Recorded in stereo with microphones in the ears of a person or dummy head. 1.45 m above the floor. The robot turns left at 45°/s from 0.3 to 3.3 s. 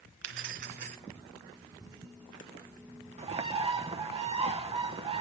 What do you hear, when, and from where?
0.2 s keys jangling: 90° right, 0.6 m; by 1.0 s 120° right, 0.6 m
3.2 s a bird: 35° right (ahead or behind), 0.6 m; by 5.2 s 30° right (ahead or behind), 0.6 m